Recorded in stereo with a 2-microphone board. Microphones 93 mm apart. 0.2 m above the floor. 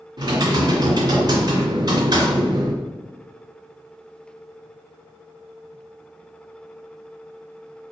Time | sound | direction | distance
0.2 | typing on a keyboard | 50° right (ahead or behind) | 1.9 m